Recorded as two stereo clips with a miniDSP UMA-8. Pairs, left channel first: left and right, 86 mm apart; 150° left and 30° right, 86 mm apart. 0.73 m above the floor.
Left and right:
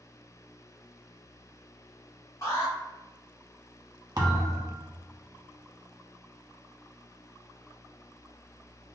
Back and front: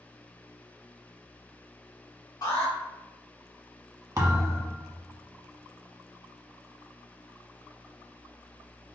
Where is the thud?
70° right, 1.0 m.